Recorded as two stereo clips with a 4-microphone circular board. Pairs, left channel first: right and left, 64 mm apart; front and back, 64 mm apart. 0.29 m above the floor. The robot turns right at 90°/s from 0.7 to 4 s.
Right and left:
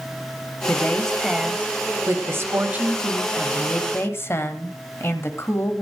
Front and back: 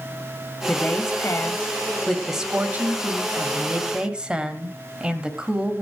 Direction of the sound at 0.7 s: 50° right.